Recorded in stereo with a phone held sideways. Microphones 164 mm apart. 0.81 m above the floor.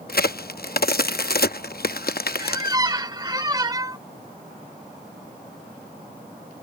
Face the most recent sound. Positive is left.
turn(degrees=-25)  # may be behind; listen again after turning